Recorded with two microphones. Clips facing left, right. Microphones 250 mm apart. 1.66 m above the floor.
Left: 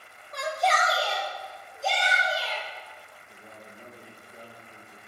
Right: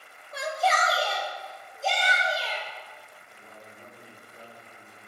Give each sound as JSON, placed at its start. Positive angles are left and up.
{"t": 0.3, "sound": "a shout", "side_deg": -5, "distance_m": 0.8}
{"t": 3.3, "sound": "a man speaking", "side_deg": 35, "distance_m": 1.3}